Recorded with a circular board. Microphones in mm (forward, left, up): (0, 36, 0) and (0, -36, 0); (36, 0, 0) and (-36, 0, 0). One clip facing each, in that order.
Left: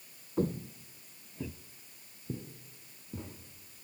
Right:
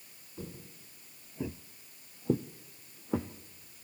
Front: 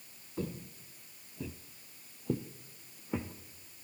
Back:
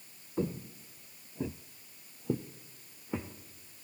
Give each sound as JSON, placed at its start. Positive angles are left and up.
{"t": 0.4, "sound": "footsteps", "azimuth_deg": 115, "distance_m": 1.0}